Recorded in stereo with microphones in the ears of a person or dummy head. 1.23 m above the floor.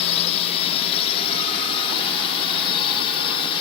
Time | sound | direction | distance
0.0 | a drone | 35° left (ahead or behind) | ?